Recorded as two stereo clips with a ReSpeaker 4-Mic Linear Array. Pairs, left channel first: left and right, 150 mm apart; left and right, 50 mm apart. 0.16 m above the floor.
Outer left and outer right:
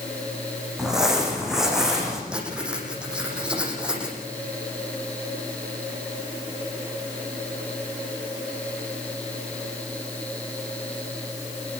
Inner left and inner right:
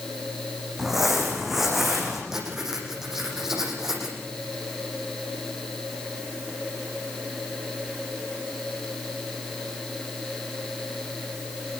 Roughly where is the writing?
Centre.